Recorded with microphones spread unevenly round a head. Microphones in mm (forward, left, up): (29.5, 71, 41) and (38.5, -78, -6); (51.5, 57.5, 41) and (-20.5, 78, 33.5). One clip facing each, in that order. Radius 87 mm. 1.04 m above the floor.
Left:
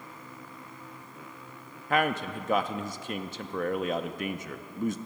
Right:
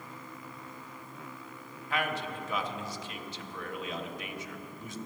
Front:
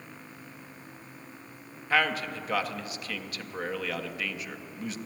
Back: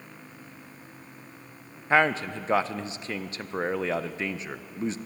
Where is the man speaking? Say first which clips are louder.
Left 6 dB, back 4 dB; 135° left, 0.5 m.